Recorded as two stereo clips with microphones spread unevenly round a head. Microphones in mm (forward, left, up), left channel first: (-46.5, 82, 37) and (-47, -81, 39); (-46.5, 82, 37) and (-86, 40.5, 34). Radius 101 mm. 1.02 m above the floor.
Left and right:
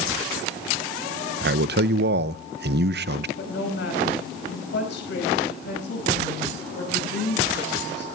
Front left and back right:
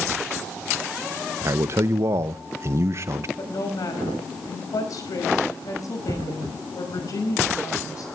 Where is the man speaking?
90° right, 0.5 m.